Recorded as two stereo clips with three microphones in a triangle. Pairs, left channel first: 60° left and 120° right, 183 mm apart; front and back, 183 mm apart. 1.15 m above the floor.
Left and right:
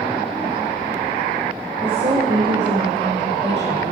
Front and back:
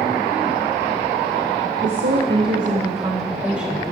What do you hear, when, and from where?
1.8 s a woman speaking: 175° left, 1.7 m; by 3.9 s 90° right, 2.5 m